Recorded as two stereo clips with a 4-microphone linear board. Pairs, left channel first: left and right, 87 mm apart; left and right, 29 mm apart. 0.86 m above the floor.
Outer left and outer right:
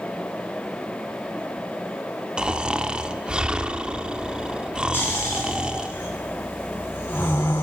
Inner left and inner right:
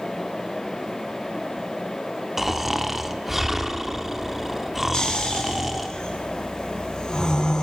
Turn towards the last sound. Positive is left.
turn(degrees=25)  # may be behind; listen again after turning